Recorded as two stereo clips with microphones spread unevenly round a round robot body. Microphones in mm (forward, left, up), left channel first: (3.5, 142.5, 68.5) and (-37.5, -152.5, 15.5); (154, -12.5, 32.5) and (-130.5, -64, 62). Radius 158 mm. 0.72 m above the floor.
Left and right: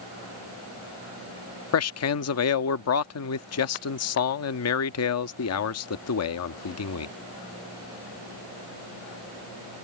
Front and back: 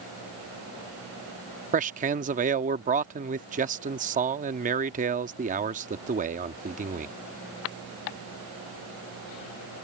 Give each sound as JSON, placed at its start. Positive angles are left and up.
{"t": 1.7, "sound": "a man speaking", "azimuth_deg": 125}